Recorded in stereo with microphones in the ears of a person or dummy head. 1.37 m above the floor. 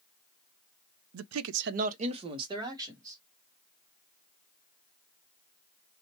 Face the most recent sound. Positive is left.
turn(degrees=-15)  # may be behind; listen again after turning